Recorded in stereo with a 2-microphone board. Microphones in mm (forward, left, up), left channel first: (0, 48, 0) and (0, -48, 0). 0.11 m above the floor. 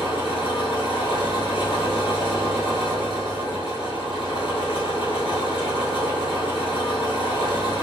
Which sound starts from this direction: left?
An engine running, at 0.0 s.